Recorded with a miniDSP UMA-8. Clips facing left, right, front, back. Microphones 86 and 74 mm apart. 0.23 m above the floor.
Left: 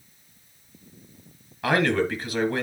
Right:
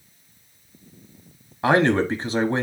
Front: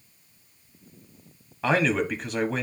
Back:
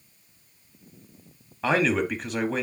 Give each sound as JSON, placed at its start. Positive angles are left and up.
{"t": 1.6, "sound": "a man speaking", "azimuth_deg": -90, "distance_m": 1.3}